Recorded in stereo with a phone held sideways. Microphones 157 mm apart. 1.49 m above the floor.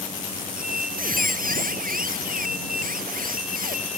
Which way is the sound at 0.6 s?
70° right (ahead or behind).